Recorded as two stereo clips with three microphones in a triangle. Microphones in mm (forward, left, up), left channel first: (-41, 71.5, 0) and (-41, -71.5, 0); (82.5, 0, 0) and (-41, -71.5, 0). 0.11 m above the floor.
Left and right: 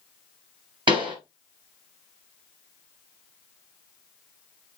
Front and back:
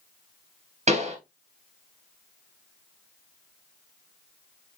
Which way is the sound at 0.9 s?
135° right.